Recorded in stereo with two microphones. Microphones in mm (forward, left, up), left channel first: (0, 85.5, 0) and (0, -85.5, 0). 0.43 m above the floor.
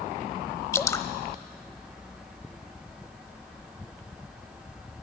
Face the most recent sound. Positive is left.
turn(degrees=15)  # may be behind; listen again after turning